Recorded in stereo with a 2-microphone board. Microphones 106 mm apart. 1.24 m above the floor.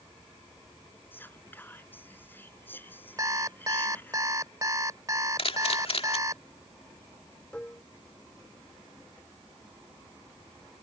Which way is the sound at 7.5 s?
10° left (ahead or behind).